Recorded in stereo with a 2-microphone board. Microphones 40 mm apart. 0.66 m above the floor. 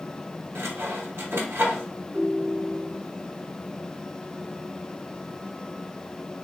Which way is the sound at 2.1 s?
65° right (ahead or behind).